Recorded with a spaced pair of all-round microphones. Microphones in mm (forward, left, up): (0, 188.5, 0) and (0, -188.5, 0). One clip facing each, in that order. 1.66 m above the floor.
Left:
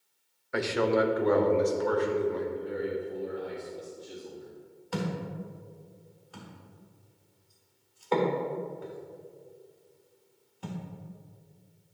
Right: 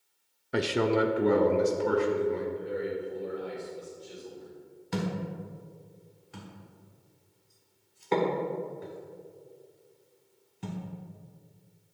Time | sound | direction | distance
0.5 | a man speaking | 45° right (ahead or behind) | 0.6 m
2.5 | a man speaking | 45° left (ahead or behind) | 3 m
4.9 | a thud | 35° right (ahead or behind) | 1.6 m